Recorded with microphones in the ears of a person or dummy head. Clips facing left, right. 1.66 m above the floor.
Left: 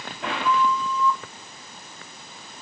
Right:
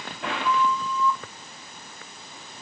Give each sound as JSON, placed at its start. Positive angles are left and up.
{"t": 0.4, "sound": "a flute", "side_deg": 75, "distance_m": 1.5}